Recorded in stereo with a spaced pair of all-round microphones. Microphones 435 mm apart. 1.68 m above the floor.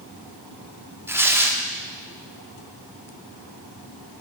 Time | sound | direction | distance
1.1 | tearing paper | 5° right (ahead or behind) | 0.5 m